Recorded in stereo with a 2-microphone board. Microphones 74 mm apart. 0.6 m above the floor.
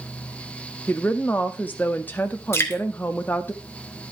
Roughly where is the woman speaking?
Left.